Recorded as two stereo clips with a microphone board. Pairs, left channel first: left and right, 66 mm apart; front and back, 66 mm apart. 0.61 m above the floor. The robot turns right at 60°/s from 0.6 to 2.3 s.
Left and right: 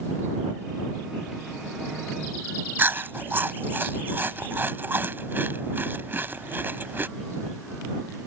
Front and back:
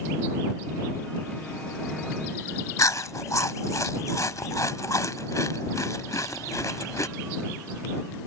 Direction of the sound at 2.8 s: 30° right.